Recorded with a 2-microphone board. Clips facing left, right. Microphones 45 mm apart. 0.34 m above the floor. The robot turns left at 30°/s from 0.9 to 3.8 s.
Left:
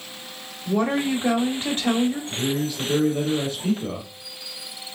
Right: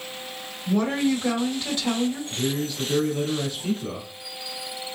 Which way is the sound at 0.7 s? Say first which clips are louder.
Even; 155° left.